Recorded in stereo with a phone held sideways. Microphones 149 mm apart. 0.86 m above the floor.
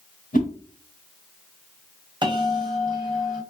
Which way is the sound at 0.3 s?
65° left (ahead or behind).